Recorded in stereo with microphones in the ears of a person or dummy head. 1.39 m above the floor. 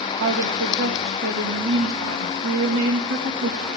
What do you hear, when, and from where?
0.2 s a woman speaking: 70° right (ahead or behind), 1.8 m